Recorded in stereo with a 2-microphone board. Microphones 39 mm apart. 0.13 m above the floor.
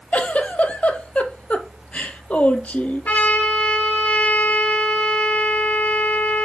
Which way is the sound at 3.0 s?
45° left (ahead or behind).